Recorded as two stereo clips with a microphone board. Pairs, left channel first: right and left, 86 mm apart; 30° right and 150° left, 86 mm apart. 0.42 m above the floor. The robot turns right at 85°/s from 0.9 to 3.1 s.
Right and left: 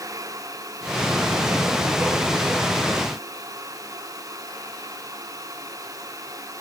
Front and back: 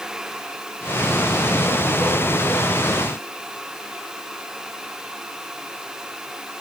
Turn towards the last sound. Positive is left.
No sound to turn to.